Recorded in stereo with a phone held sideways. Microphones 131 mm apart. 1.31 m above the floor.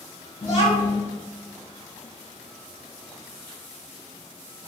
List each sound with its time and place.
0.4 s a child speaking: 45° left (ahead or behind), 1.4 m